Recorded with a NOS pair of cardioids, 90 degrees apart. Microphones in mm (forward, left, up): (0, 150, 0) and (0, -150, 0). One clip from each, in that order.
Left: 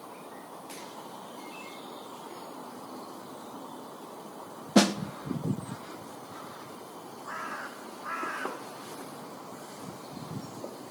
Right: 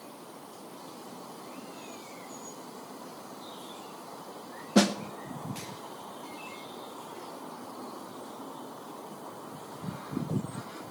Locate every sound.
4.8 s a snare drum: 10° left, 0.6 m